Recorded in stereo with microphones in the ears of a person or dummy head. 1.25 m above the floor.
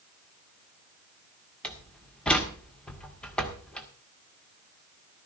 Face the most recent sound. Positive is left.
turn(degrees=5)  # may be behind; listen again after turning